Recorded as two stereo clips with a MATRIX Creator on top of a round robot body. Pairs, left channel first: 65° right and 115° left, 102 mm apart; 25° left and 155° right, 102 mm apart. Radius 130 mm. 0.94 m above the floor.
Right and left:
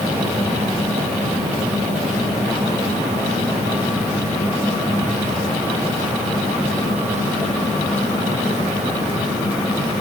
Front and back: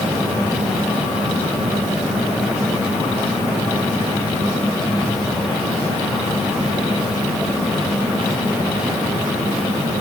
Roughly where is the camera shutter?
I don't hear a camera shutter.